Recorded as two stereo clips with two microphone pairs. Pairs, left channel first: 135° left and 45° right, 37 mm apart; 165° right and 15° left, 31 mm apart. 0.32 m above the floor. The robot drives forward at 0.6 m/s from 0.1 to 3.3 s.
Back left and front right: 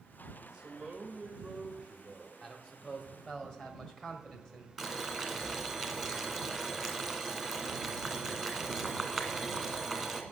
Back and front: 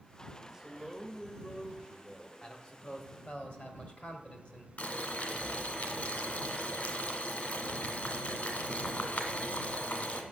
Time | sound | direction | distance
0.4 | a man speaking | 45° right | 1.3 m
2.4 | a man speaking | 165° right | 1.5 m
4.8 | boiling | 145° right | 1.7 m